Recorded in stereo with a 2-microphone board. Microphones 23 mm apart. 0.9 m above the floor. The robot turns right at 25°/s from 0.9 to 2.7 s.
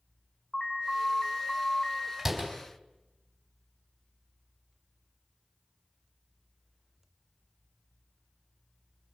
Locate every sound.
0.5 s an alarm: 25° left (ahead or behind), 5 m; by 2.1 s 55° left (ahead or behind), 5 m
2.2 s a door slam: 15° right (ahead or behind), 4 m; by 2.5 s 5° right (ahead or behind), 4 m